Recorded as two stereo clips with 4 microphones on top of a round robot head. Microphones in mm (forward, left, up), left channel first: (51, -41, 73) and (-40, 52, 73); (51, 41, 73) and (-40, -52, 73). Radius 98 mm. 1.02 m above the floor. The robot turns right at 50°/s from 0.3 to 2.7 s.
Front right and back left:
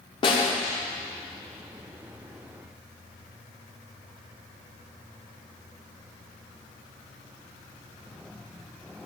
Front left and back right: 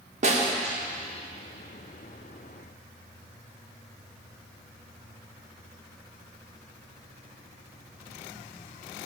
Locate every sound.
0.2 s a snare drum: 100° right, 1.7 m; by 0.5 s 85° right, 1.7 m